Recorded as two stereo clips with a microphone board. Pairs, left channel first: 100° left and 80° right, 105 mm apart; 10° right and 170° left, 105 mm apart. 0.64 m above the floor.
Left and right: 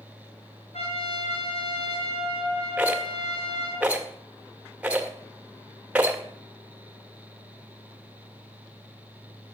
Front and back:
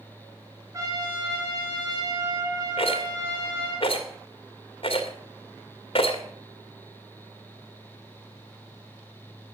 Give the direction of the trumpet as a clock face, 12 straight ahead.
8 o'clock.